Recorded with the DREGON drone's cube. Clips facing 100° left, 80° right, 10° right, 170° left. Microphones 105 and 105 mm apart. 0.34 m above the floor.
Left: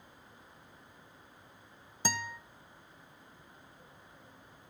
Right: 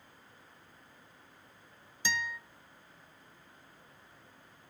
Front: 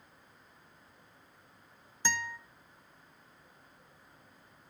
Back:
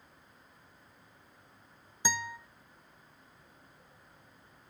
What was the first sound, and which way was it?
A guitar, 100° left.